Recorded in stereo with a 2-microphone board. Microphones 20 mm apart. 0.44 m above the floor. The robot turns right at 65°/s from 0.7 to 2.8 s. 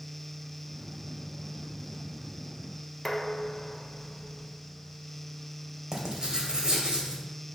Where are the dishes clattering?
15° left (ahead or behind), 1.0 m.